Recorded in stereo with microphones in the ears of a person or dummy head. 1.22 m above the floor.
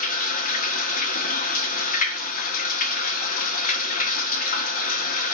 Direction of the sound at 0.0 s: 50° left (ahead or behind).